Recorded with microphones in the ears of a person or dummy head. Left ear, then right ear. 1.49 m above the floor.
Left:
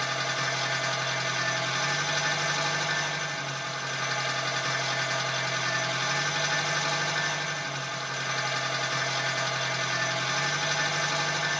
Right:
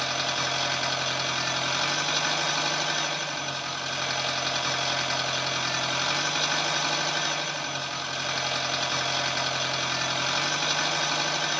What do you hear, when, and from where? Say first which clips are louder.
0.0 s an engine running: right 1 dB; 45° right (ahead or behind), 1.2 m